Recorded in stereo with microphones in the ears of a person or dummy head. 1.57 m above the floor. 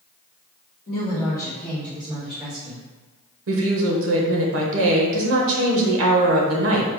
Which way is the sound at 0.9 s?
40° left (ahead or behind).